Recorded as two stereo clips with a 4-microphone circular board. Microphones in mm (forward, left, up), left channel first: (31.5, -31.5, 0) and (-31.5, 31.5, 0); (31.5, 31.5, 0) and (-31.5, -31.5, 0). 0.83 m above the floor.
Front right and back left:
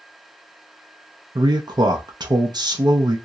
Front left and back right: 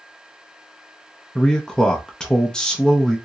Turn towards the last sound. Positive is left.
turn(degrees=125)